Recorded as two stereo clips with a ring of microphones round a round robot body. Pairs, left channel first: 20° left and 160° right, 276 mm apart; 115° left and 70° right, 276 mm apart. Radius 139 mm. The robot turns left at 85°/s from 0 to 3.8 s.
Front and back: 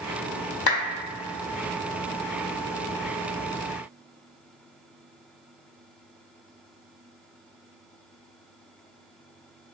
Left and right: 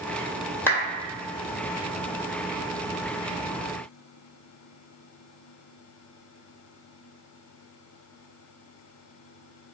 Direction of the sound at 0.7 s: 30° left.